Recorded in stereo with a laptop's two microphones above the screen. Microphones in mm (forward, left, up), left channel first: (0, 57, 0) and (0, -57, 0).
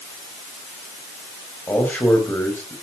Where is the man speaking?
15° left (ahead or behind), 4 m.